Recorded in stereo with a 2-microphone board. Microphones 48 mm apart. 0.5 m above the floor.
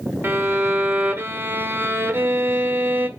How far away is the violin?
About 1.4 m.